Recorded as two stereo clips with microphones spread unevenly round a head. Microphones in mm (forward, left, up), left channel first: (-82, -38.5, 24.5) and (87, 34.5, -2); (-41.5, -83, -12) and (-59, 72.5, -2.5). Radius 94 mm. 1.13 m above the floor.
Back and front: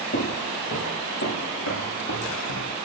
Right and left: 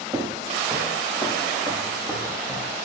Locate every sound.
0.1 s footsteps: 170° left, 7 m; by 2.7 s 165° right, 8 m